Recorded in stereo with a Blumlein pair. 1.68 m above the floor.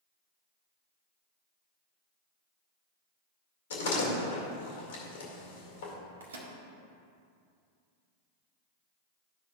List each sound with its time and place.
3.7 s a door slam: 60° left, 2 m
6.2 s a microwave: 70° right, 1.3 m